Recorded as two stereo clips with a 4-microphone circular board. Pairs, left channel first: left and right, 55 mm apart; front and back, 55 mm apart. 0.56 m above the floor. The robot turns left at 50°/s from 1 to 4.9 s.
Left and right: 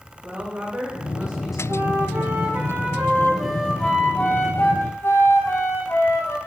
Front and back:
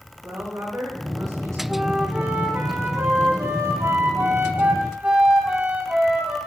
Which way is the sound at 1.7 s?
90° right.